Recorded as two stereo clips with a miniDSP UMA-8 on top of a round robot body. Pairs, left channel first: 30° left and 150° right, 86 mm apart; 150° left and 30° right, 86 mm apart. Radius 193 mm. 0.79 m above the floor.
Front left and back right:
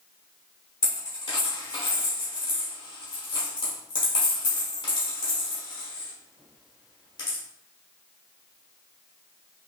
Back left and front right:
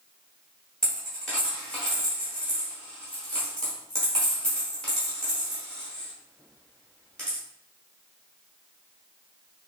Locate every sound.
0.8 s a dropped coin: 65° left, 0.8 m